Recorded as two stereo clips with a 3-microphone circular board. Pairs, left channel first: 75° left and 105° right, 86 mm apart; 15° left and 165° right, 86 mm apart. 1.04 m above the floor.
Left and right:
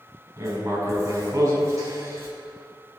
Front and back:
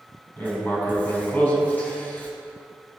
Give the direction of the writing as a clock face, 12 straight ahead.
2 o'clock.